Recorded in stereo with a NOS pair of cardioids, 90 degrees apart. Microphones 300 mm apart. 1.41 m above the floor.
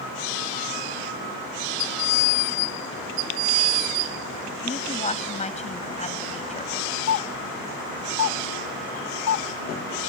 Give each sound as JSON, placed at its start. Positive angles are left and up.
{"t": 4.6, "sound": "a woman speaking", "azimuth_deg": 20}
{"t": 7.1, "sound": "a doorbell", "azimuth_deg": 65}